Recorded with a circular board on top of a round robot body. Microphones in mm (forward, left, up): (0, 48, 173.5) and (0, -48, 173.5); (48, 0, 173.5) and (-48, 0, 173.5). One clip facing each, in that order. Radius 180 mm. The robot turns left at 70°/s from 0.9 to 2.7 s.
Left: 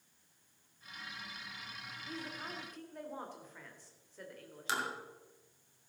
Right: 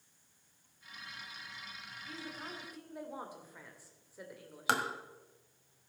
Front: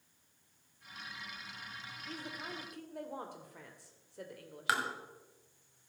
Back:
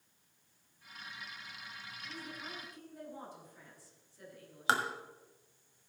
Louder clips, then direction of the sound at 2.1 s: Left 1 dB, front 3 dB; 35° left.